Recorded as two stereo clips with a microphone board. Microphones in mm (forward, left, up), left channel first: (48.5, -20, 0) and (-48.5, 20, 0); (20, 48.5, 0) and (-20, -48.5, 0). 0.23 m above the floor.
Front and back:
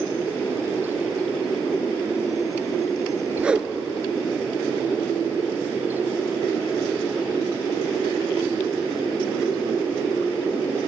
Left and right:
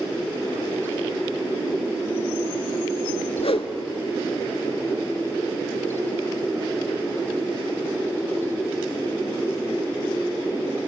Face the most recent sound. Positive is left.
turn(degrees=80)